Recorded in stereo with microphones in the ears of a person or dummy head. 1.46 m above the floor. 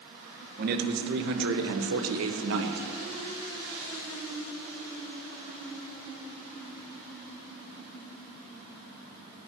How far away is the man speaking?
About 1.6 m.